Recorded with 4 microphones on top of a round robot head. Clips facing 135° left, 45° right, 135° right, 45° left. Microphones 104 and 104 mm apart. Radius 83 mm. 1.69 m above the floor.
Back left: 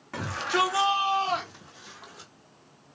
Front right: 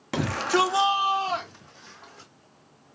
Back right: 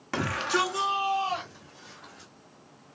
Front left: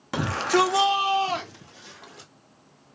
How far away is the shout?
About 0.6 m.